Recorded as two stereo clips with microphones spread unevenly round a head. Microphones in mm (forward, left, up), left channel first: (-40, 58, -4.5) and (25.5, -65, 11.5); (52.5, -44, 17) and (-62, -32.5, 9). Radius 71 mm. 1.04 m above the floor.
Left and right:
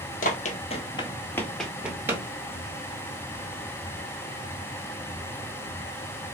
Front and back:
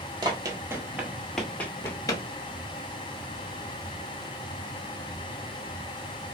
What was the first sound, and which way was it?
Running footsteps, 120° left.